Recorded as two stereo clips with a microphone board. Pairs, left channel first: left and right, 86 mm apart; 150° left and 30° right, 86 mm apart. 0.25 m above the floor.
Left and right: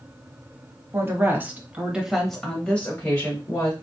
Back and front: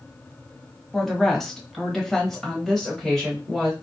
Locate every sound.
0.9 s a woman speaking: 125° right, 1.2 m; by 3.7 s 60° left, 1.2 m